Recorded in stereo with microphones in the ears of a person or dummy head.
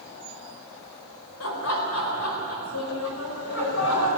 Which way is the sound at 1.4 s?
80° left.